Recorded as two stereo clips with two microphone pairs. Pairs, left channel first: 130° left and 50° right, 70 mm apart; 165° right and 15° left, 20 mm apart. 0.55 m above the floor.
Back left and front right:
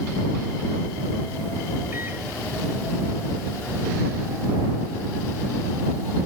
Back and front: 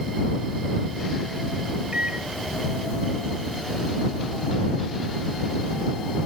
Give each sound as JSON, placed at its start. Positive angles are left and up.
{"t": 1.9, "sound": "a microwave", "azimuth_deg": 5}